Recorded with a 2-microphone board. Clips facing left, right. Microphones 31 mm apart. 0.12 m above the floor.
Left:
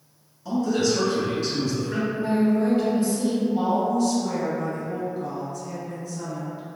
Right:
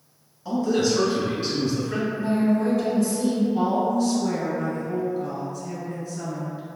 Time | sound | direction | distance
0.5 | a man speaking | 5° right (ahead or behind) | 1.1 m
2.1 | a woman speaking | 40° left (ahead or behind) | 1.9 m
3.5 | a woman speaking | 15° right (ahead or behind) | 1.2 m